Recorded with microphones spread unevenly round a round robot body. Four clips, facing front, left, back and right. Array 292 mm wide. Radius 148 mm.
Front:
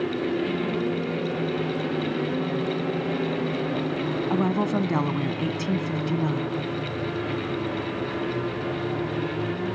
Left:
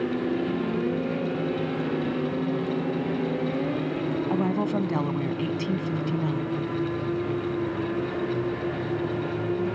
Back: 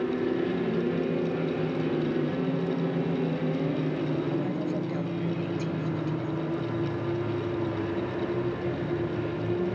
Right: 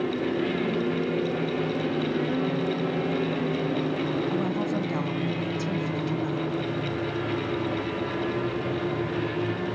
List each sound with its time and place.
4.3 s a woman speaking: 15° left